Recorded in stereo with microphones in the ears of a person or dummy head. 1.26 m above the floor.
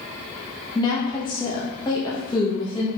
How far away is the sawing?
I don't hear sawing.